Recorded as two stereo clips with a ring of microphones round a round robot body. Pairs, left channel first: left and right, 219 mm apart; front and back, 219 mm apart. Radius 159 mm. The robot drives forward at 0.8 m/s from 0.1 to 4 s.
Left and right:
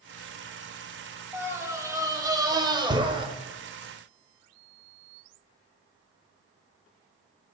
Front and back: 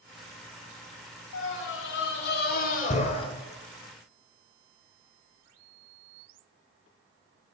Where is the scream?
15° right, 2.5 m; by 3.3 s 45° right, 1.3 m.